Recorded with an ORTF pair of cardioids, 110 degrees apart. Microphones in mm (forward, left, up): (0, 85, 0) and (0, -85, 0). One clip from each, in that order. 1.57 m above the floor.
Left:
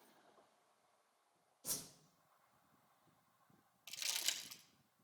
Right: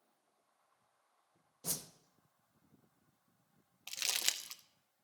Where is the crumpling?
55° right, 0.7 m.